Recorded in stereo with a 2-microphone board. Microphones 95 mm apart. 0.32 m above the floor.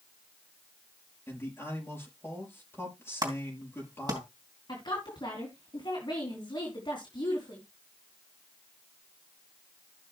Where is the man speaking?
25° left (ahead or behind), 5.5 m.